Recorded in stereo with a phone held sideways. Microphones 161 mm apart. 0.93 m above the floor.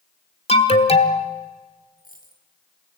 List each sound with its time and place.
0.5 s an alarm: 40° left (ahead or behind), 1.6 m
2.0 s a dropped coin: 60° left (ahead or behind), 3 m